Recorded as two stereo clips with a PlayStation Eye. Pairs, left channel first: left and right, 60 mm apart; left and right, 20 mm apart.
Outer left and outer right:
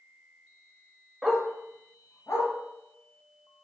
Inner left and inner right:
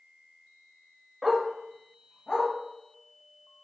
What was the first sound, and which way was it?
A dog barking, 5° right (ahead or behind).